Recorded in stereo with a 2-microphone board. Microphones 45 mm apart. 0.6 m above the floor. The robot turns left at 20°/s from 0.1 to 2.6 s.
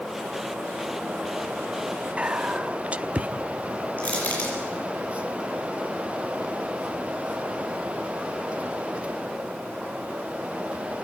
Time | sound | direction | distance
2.2 | whispering | 25° right (ahead or behind) | 0.6 m
4.0 | crushing | 35° left (ahead or behind) | 7.5 m